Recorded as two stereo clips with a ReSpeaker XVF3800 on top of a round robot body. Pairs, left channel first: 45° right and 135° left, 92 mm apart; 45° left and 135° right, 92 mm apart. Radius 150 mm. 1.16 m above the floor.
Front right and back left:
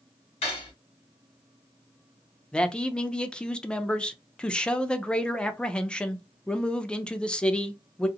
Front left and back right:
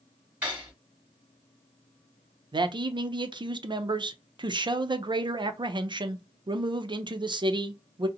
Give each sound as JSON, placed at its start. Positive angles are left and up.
{"t": 0.4, "sound": "cutlery clinking", "azimuth_deg": -55, "distance_m": 1.1}
{"t": 2.5, "sound": "a man speaking", "azimuth_deg": -125, "distance_m": 0.6}